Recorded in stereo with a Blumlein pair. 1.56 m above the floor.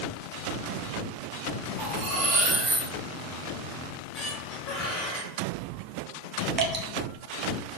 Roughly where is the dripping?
Ahead right.